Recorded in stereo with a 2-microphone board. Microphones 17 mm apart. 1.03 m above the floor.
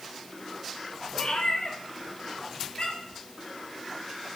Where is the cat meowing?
60° left (ahead or behind), 1.8 m; by 3.2 s 65° left (ahead or behind), 4 m.